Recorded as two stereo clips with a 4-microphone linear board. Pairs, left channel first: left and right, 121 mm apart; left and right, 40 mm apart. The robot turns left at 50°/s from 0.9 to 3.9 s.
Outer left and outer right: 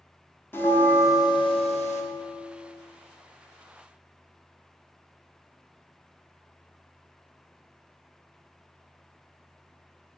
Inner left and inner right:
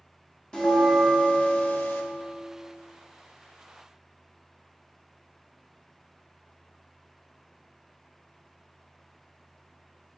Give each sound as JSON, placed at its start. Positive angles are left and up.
{"t": 0.5, "sound": "a bell", "azimuth_deg": 165, "distance_m": 0.8}